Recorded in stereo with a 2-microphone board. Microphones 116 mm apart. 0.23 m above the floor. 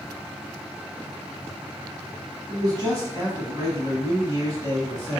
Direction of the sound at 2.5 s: 35° right (ahead or behind).